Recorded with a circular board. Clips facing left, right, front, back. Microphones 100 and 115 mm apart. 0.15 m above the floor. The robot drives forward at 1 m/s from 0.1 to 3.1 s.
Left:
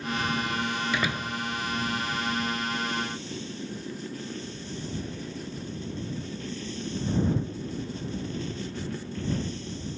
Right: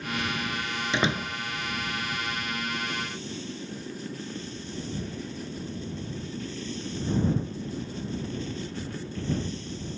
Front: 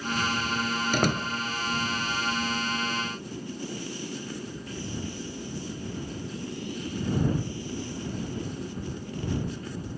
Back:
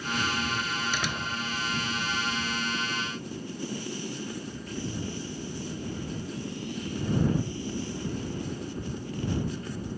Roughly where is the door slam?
Ahead right.